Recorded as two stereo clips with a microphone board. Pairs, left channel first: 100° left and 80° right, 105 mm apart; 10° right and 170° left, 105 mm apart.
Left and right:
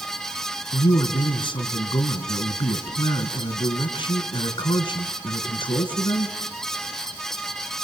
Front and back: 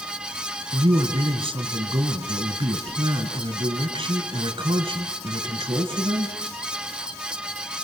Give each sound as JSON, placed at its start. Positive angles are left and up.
{"t": 0.7, "sound": "a man speaking", "azimuth_deg": 130, "distance_m": 3.5}